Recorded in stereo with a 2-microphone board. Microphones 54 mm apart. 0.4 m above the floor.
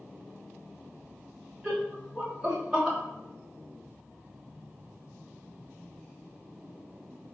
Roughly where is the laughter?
Centre.